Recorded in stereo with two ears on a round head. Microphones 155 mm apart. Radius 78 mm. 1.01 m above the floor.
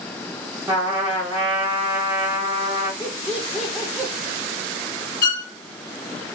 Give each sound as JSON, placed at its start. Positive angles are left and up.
{"t": 0.7, "sound": "a trumpet", "side_deg": -10, "distance_m": 1.0}
{"t": 3.0, "sound": "laughter", "side_deg": 5, "distance_m": 0.6}
{"t": 5.2, "sound": "a violin", "side_deg": 55, "distance_m": 1.4}